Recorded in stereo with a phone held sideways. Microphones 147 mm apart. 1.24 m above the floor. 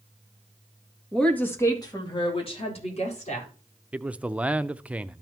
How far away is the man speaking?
About 0.5 m.